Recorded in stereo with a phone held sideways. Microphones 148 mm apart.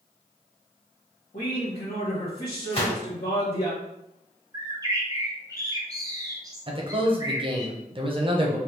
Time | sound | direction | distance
1.3 | a man speaking | 65° left (ahead or behind) | 1.1 m
2.7 | a gunshot | 45° left (ahead or behind) | 1.8 m
4.5 | a bird | 25° right (ahead or behind) | 0.7 m
6.7 | a man speaking | 35° right (ahead or behind) | 0.7 m